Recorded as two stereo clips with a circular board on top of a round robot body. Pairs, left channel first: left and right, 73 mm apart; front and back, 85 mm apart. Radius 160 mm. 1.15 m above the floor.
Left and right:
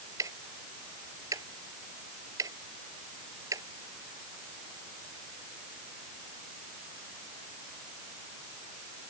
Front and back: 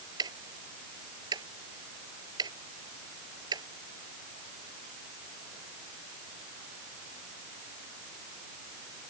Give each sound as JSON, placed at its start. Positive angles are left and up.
{"t": 0.2, "sound": "ticking", "azimuth_deg": -140}